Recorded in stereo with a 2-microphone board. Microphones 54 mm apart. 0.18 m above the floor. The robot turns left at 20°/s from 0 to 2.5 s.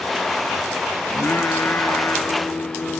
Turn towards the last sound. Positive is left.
turn(degrees=60)  # may be behind; listen again after turning